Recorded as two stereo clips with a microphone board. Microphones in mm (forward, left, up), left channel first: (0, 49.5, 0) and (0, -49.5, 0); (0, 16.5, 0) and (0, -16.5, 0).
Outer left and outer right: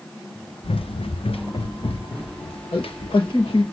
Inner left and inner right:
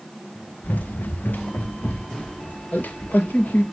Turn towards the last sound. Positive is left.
turn(degrees=75)  # may be behind; listen again after turning